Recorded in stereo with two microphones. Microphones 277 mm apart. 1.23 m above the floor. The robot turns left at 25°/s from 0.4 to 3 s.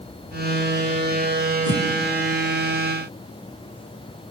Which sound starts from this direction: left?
A whoosh, at 1.6 s.